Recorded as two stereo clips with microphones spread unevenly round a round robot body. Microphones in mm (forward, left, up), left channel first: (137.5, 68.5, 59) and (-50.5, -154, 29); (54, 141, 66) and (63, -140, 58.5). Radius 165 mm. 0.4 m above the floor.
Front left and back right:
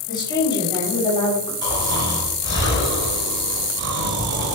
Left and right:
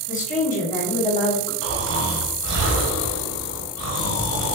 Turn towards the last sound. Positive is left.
turn(degrees=-80)